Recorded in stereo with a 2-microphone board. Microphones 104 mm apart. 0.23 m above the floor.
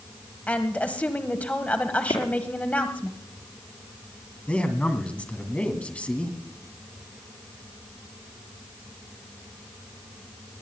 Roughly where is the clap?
Left.